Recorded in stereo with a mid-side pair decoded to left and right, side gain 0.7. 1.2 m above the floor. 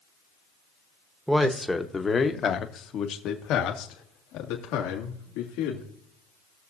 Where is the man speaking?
5° right, 1.2 m; by 5.9 s 75° left, 3 m.